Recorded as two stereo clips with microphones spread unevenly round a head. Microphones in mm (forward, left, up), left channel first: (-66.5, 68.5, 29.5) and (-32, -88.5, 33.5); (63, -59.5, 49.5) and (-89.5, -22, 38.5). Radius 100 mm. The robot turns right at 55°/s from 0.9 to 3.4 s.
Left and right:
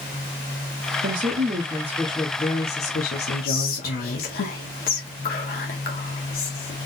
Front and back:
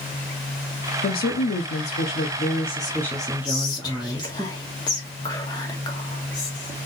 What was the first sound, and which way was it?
A woman speaking, 45° right.